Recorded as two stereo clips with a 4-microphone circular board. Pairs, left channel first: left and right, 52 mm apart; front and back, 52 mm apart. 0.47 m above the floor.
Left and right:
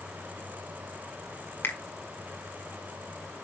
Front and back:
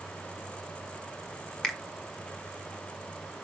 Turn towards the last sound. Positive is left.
turn(degrees=80)